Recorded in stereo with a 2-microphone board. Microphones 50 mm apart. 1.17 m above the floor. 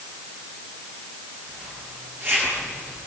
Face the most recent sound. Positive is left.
turn(degrees=-40)  # may be behind; listen again after turning